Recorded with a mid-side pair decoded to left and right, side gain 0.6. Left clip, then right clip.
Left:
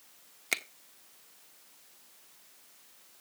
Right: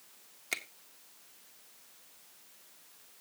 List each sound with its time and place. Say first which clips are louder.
0.5 s a finger snap: left 4 dB; 30° left, 1.1 m